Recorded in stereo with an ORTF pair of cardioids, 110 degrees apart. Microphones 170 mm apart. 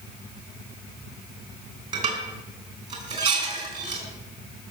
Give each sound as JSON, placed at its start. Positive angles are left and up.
{"t": 1.9, "sound": "dishes clattering", "azimuth_deg": -45, "distance_m": 5.0}